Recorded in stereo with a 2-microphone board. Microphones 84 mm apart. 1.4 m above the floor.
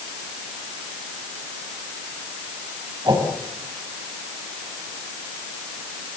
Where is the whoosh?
55° right (ahead or behind), 5.5 m.